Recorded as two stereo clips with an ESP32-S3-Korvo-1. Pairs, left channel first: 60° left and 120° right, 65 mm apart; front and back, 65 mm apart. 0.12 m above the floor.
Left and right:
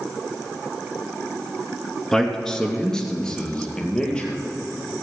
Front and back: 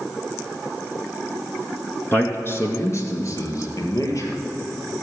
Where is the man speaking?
20° right, 1.9 m; by 4.4 s 15° right, 3.5 m.